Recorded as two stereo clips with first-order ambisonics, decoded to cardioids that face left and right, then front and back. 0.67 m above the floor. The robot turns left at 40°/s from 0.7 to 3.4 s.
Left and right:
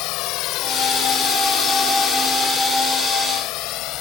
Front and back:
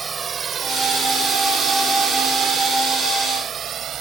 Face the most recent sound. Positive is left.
turn(degrees=125)